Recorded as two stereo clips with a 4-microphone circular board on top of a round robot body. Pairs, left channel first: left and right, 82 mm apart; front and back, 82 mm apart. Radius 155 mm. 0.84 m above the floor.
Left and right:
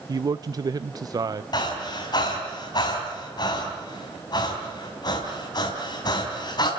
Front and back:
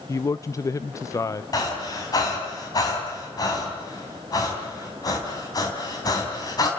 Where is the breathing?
50° left, 3 m.